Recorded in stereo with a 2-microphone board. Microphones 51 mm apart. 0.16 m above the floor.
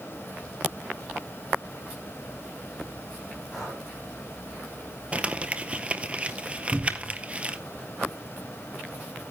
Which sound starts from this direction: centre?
Breathing, at 3.5 s.